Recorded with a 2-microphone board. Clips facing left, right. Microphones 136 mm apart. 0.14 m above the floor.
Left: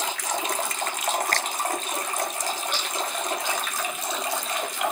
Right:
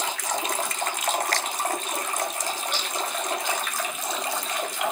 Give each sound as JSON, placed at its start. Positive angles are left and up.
{"t": 1.3, "sound": "a finger snap", "side_deg": 50, "distance_m": 1.5}